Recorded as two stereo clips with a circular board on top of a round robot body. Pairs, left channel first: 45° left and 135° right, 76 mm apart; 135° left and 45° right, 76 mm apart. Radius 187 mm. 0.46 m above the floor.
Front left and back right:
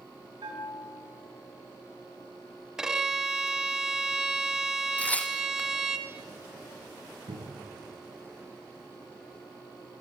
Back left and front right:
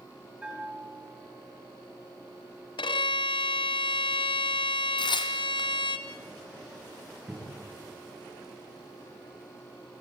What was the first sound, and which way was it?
A bell, 120° right.